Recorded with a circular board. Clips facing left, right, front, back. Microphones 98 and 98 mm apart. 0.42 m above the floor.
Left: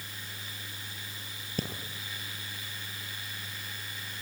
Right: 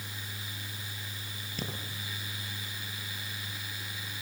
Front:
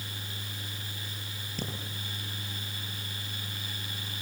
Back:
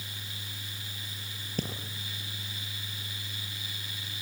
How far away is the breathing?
About 6.5 m.